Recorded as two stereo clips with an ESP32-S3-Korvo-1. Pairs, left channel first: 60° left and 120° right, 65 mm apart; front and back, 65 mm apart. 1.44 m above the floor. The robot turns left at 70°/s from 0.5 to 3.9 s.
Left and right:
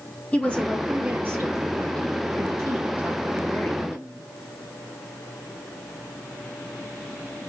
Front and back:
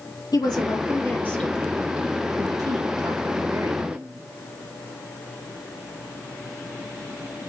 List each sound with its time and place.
0.3 s a woman speaking: 10° right, 1.9 m; by 4.3 s 110° left, 1.9 m